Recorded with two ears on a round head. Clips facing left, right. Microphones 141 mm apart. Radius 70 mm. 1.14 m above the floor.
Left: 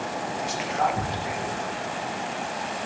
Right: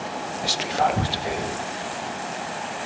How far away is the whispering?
About 0.6 m.